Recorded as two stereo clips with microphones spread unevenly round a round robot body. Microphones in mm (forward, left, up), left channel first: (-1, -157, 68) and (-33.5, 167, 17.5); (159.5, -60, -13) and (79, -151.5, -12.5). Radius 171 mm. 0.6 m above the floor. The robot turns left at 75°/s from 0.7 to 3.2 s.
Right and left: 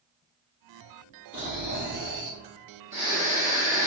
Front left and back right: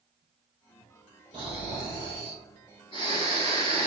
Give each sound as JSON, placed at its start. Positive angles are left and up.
{"t": 1.3, "sound": "snoring", "azimuth_deg": 170, "distance_m": 1.4}